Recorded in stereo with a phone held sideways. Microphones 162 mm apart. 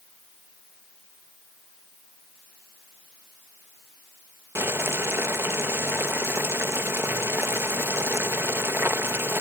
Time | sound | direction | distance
4.5 | boiling | 15° right (ahead or behind) | ?